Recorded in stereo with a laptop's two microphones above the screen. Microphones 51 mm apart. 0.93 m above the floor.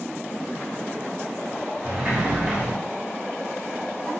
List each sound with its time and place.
1.8 s a sliding door: 25° right (ahead or behind), 0.9 m